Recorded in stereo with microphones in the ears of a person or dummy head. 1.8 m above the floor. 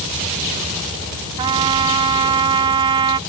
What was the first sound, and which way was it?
A trumpet, 35° right (ahead or behind).